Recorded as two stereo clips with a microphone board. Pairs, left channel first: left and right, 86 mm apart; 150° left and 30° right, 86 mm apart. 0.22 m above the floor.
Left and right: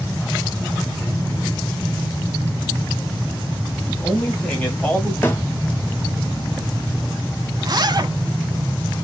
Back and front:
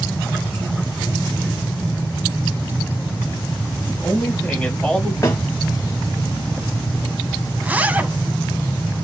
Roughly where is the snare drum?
Behind left.